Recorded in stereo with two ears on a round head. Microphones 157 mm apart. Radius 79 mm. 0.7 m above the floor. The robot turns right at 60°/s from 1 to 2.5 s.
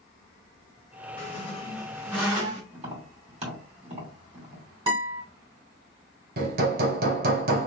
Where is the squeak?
125° left, 2.5 m; by 2.6 s 155° right, 2.5 m.